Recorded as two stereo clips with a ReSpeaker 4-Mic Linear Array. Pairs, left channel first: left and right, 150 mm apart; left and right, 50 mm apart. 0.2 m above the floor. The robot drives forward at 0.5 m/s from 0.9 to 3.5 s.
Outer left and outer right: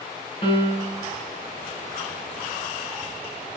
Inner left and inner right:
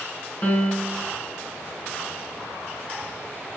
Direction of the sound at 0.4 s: 35° left (ahead or behind).